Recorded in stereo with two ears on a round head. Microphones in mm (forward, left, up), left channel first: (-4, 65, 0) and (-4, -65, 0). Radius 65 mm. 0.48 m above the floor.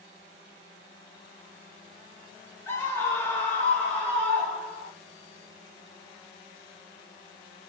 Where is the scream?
15° left (ahead or behind), 1.3 m; by 4.9 s 5° left (ahead or behind), 2 m.